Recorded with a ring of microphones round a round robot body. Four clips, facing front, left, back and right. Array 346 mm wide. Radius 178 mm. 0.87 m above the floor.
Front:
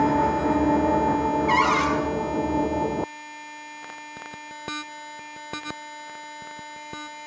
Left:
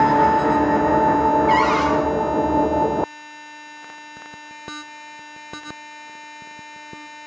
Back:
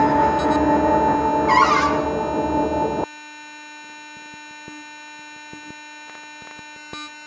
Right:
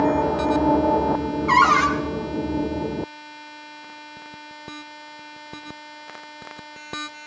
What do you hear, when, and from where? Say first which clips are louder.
1.5 s a cupboard door: even, back 6 dB; 110° right, 3 m